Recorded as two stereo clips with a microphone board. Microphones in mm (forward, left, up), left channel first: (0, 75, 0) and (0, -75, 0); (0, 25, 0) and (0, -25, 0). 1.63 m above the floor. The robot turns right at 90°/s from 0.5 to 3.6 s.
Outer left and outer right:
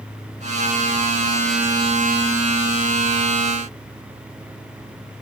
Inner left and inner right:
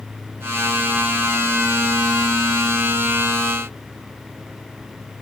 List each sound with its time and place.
Only background noise.